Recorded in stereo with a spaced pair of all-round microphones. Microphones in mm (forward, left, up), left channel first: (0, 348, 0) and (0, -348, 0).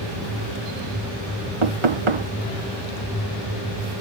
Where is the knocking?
50° right (ahead or behind).